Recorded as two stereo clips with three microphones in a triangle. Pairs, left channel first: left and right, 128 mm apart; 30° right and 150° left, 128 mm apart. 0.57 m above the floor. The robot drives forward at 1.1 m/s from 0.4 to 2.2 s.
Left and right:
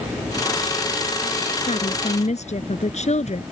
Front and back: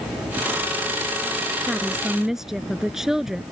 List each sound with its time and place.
1.7 s a woman speaking: 60° left; by 3.4 s 65° left